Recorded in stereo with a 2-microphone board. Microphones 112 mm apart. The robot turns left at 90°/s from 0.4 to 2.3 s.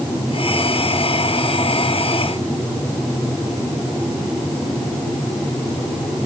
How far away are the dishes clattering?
No dishes clattering in this recording.